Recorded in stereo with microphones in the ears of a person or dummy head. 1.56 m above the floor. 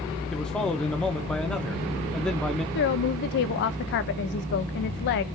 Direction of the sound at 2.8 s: 60° left (ahead or behind).